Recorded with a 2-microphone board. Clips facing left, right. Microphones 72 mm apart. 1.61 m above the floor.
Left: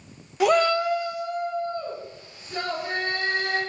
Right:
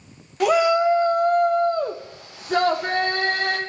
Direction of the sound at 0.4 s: Centre (ahead or behind).